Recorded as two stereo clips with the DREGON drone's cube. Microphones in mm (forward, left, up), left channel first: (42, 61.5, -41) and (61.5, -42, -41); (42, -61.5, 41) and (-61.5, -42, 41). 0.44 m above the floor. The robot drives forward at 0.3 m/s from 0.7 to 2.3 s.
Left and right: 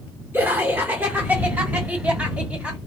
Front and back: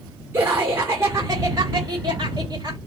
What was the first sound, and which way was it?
Laughter, 135° right.